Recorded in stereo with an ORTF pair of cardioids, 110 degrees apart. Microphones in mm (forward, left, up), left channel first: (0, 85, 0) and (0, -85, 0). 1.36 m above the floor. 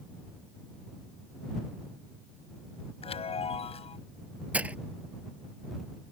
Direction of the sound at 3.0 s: 35° left.